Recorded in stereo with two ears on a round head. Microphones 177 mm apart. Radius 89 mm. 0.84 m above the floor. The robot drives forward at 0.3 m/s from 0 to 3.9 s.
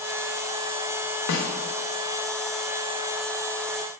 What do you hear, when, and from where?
1.3 s a snare drum: 70° left (ahead or behind), 0.5 m; by 1.5 s 75° left (ahead or behind), 0.5 m